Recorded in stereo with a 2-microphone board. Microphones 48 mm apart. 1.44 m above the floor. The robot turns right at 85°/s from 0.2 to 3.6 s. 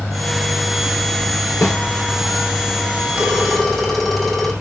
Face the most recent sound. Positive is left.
turn(degrees=10)